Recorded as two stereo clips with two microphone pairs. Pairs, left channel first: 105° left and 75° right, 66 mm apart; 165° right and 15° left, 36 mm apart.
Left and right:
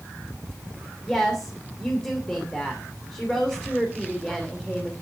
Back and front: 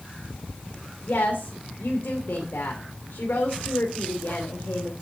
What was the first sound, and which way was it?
A woman speaking, 175° right.